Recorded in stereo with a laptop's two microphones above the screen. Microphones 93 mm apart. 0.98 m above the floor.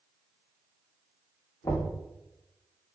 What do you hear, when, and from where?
1.6 s knocking: 50° left (ahead or behind), 1.4 m